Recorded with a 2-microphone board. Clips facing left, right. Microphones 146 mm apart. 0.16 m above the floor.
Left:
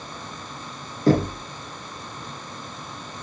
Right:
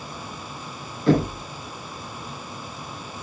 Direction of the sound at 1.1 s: 40° left (ahead or behind).